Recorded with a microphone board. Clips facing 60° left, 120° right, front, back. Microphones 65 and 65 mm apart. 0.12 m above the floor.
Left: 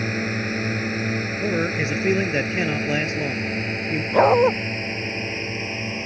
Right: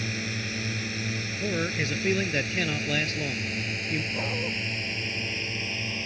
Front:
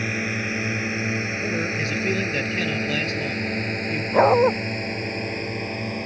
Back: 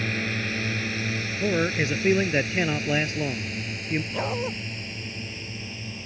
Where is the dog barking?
40° left.